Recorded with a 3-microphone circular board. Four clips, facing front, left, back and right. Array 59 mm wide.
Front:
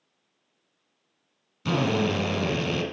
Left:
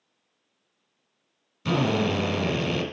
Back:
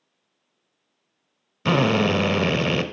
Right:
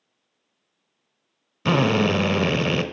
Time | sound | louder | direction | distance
1.6 | a drill | right 4 dB, back 5 dB | 135° right | 0.9 m